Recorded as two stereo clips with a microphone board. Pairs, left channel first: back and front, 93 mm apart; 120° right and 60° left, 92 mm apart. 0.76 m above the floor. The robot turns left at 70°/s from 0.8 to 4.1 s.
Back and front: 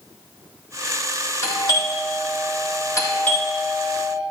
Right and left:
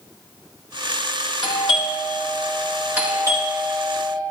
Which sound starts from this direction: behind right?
A doorbell, at 1.4 s.